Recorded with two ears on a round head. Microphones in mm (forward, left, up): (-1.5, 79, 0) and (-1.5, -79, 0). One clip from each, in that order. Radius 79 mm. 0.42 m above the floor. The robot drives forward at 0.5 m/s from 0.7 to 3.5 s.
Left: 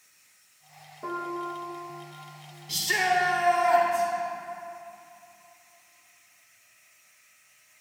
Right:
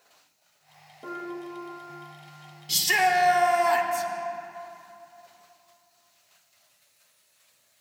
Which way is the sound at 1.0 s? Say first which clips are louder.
Left 4 dB; 65° left (ahead or behind).